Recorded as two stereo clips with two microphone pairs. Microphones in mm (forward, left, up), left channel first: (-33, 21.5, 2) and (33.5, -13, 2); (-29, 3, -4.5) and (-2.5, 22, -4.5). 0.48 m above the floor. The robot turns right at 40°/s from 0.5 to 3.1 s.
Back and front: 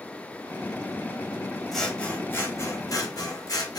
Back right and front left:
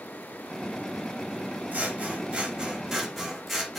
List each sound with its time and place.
1.7 s scissors: 65° left, 0.8 m; by 3.8 s 120° left, 0.8 m